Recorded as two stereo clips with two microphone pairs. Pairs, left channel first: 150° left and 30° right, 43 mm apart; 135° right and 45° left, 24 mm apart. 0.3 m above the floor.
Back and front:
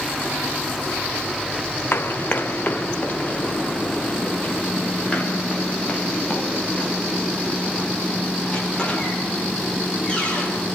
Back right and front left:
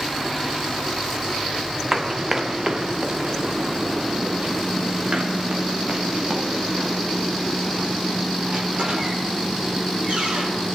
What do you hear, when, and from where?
1.9 s running footsteps: 120° left, 1.4 m; by 10.7 s 85° left, 10 m